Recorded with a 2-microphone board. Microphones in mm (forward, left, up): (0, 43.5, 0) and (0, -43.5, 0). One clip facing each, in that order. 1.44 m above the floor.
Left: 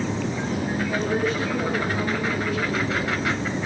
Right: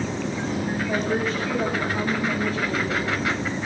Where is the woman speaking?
45° right (ahead or behind), 8 m; by 3.1 s 35° right (ahead or behind), 9 m.